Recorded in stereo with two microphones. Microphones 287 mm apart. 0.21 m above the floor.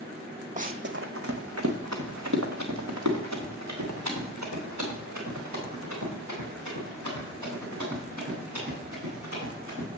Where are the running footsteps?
25° right (ahead or behind), 0.5 m; by 9.9 s 80° right, 7 m.